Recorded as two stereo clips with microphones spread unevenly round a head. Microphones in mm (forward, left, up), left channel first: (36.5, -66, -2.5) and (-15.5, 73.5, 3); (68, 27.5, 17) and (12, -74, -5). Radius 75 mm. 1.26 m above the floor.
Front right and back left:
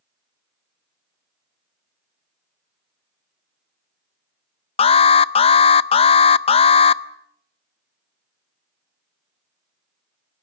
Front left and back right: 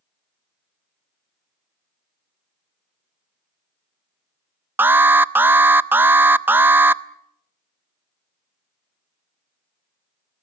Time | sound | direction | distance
4.8 | an alarm | 40° right | 0.5 m